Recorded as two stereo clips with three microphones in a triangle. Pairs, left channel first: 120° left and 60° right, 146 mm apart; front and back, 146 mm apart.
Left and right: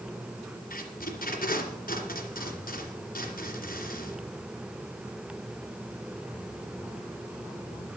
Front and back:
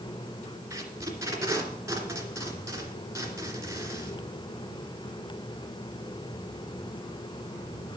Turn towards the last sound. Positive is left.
turn(degrees=110)